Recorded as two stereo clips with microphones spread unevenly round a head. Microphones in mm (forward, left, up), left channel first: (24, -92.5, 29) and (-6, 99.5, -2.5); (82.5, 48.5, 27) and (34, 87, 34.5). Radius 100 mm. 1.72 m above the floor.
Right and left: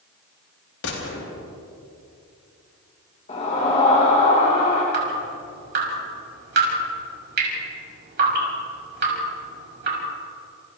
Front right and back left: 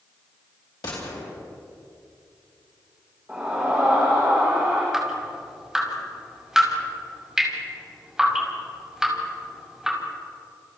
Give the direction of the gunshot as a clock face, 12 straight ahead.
2 o'clock.